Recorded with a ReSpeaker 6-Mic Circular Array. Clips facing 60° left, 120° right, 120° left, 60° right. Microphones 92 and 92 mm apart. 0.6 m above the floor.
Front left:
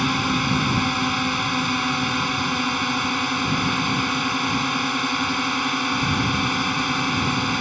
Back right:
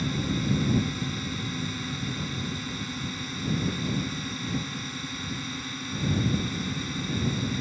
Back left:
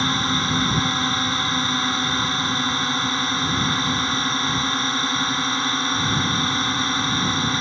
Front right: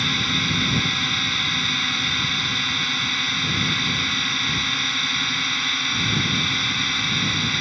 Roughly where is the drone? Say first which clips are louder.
Front left 7 dB, back left 4 dB; ahead left.